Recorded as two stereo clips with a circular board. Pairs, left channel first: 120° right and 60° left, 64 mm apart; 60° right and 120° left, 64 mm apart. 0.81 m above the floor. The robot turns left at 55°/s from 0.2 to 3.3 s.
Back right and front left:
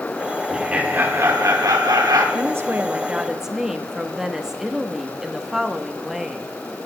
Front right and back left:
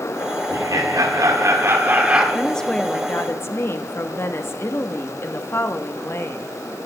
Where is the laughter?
140° left, 2.5 m; by 2.2 s 45° left, 2.5 m.